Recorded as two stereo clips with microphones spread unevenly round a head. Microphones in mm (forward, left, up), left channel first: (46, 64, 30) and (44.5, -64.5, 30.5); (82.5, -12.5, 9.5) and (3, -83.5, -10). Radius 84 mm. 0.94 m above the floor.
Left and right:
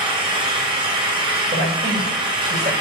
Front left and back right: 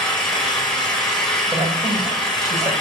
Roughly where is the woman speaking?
Right.